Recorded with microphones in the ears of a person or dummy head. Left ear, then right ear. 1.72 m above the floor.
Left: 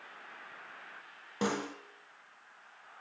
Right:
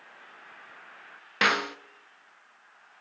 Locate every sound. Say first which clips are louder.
1.4 s a snare drum: right 11 dB; 65° right (ahead or behind), 0.9 m